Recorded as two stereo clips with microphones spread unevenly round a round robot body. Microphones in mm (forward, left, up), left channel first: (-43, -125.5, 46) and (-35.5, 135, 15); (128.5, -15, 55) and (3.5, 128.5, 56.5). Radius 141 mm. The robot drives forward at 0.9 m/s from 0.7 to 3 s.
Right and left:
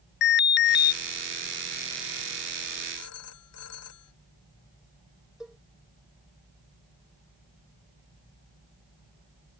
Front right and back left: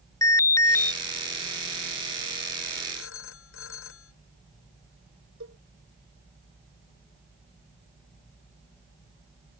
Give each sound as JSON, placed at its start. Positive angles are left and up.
{"t": 0.2, "sound": "an alarm", "azimuth_deg": -110}
{"t": 3.0, "sound": "a phone ringing", "azimuth_deg": -50}
{"t": 5.4, "sound": "a cowbell", "azimuth_deg": 175}